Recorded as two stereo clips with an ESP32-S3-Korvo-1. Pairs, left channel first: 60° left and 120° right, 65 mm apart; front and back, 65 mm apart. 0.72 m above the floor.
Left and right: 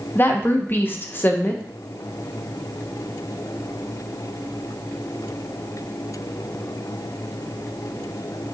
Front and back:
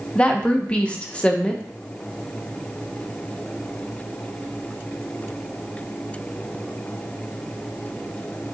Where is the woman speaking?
55° left, 0.5 m.